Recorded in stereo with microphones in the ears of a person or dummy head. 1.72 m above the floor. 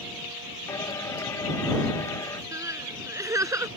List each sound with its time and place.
0.7 s singing: 20° left (ahead or behind)
2.5 s crying: 10° right (ahead or behind)